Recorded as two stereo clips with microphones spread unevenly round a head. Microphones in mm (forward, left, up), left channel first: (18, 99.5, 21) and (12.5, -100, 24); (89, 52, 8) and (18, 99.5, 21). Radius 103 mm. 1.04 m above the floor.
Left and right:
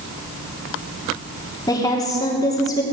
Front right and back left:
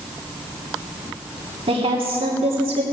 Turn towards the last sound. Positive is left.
turn(degrees=160)